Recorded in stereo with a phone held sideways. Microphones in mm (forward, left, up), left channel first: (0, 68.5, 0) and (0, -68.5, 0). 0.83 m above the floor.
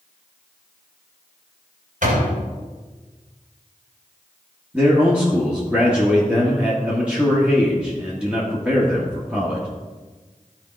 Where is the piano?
No piano in this recording.